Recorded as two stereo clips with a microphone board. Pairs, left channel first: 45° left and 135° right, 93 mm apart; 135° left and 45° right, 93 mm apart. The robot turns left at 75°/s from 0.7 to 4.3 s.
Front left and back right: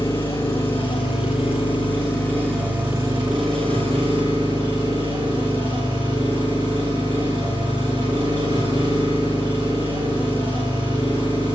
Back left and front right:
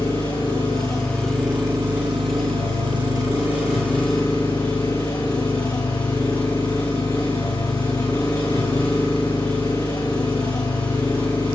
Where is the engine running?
90° left, 6.5 m; by 11.6 s straight behind, 6.5 m.